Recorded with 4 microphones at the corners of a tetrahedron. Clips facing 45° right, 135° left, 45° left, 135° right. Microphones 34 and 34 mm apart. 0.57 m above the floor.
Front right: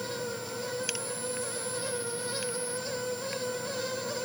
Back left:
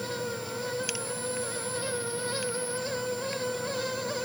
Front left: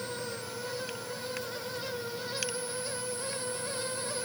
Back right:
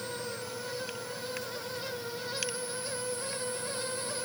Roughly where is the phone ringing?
I don't hear a phone ringing.